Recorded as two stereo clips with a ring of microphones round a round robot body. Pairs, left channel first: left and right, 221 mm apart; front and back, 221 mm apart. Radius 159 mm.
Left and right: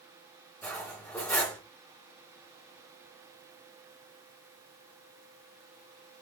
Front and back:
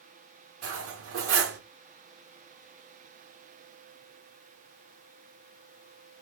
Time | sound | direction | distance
0.6 | cutlery clinking | 175° left | 0.9 m